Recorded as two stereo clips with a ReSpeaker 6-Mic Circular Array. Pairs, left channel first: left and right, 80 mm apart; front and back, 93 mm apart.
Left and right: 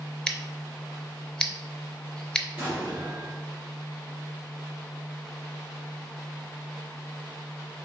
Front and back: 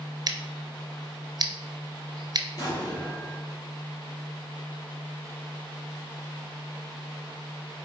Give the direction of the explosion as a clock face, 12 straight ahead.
1 o'clock.